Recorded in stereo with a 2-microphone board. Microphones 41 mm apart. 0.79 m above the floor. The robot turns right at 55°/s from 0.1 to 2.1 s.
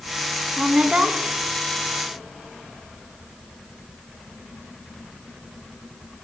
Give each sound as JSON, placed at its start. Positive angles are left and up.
{"t": 0.6, "sound": "a woman speaking", "azimuth_deg": -145, "distance_m": 0.9}